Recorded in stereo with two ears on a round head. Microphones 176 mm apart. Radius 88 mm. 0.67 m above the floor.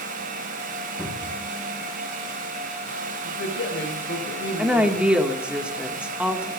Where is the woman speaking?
5° right (ahead or behind), 2.0 m.